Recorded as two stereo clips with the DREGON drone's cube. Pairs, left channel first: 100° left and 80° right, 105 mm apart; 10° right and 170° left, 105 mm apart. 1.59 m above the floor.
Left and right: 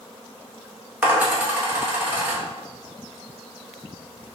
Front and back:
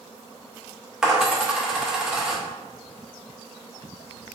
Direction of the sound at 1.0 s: 120° right.